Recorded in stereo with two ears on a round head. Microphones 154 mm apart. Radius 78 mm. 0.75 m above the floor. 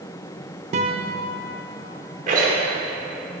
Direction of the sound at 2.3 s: 50° right (ahead or behind).